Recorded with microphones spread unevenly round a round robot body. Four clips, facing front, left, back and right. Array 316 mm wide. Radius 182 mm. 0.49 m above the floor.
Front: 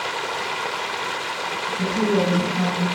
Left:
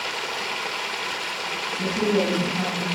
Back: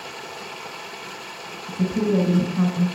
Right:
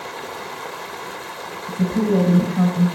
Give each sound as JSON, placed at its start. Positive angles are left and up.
{"t": 0.0, "sound": "running water", "azimuth_deg": 0, "distance_m": 1.6}
{"t": 1.7, "sound": "a woman speaking", "azimuth_deg": -105, "distance_m": 3.5}